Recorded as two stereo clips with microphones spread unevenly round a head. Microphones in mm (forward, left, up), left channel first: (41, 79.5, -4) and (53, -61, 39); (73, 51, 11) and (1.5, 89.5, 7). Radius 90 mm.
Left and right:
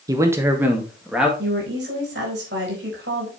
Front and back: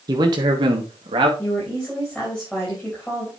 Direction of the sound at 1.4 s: 115° right.